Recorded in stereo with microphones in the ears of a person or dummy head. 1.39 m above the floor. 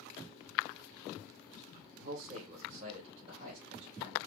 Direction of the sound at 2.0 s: 45° right (ahead or behind).